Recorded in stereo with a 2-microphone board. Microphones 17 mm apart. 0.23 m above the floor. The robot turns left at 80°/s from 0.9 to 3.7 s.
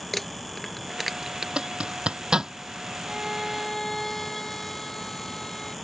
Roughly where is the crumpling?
Centre.